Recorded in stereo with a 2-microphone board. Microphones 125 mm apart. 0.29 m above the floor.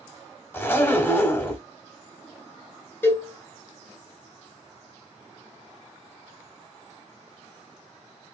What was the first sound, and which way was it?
A zipper, 15° left (ahead or behind).